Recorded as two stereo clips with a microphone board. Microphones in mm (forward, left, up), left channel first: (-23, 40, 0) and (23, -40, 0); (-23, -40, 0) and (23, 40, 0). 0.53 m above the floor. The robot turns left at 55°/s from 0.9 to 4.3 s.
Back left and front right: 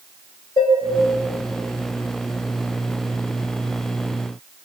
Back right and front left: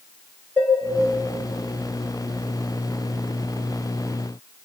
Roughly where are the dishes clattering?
Behind.